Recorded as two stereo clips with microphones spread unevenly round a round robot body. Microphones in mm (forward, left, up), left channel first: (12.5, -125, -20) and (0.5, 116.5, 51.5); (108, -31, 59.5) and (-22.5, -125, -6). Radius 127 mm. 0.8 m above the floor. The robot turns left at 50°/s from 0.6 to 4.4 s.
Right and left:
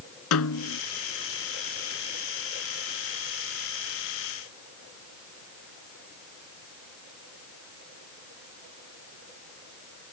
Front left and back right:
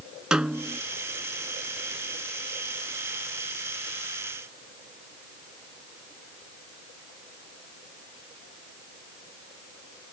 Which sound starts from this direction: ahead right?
A snare drum, at 0.3 s.